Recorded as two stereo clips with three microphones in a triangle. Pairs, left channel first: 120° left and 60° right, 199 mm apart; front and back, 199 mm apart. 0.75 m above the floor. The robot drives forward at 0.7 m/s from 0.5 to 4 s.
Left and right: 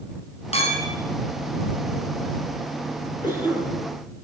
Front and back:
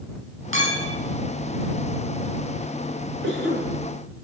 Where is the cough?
175° right, 10 m.